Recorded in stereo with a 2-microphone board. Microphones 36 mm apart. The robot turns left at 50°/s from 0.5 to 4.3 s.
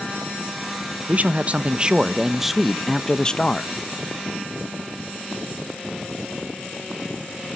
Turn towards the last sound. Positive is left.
turn(degrees=90)